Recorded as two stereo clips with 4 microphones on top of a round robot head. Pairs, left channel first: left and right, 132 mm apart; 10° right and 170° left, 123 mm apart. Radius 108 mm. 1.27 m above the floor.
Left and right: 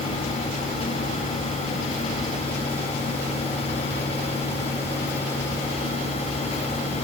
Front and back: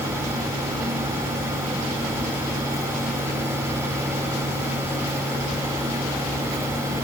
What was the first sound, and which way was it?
Only background noise.